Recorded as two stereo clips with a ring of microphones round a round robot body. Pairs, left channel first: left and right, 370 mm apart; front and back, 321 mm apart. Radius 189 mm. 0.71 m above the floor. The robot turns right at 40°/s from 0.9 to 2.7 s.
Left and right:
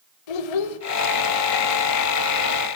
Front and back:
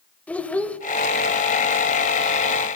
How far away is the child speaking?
About 3 m.